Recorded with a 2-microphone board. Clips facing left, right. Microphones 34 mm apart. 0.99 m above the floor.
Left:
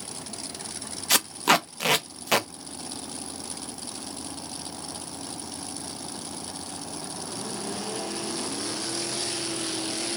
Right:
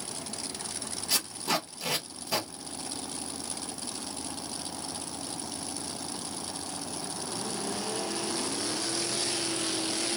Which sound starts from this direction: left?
Tape being pulled, at 1.1 s.